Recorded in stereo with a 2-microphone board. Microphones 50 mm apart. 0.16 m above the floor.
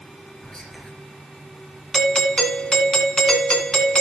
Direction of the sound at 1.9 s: 15° left (ahead or behind).